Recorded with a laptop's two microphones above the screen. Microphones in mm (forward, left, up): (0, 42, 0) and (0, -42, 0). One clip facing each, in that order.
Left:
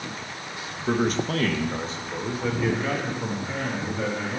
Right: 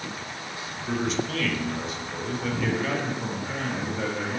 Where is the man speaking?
50° left (ahead or behind), 1.0 m; by 4.4 s centre (ahead or behind), 1.9 m.